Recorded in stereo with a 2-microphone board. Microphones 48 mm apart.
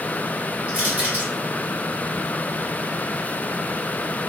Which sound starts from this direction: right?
Crushing, at 0.7 s.